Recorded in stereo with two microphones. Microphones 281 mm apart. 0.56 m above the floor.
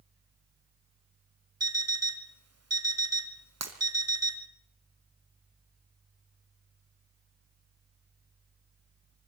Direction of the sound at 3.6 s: 70° right (ahead or behind).